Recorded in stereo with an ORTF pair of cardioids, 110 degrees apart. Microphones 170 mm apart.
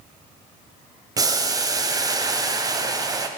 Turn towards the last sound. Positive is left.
turn(degrees=-25)